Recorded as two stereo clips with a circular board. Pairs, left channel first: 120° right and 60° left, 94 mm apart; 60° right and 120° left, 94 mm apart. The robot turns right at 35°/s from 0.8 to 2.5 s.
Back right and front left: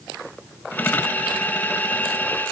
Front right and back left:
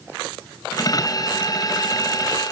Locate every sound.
Only background noise.